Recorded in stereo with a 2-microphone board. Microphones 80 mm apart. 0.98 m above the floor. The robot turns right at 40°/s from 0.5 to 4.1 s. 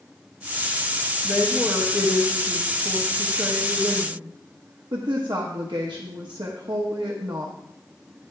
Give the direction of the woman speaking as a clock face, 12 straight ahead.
7 o'clock.